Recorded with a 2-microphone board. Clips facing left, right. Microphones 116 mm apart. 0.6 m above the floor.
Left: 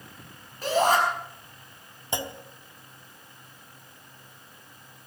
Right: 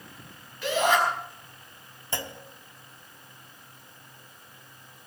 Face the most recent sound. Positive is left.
turn(degrees=20)  # may be behind; listen again after turning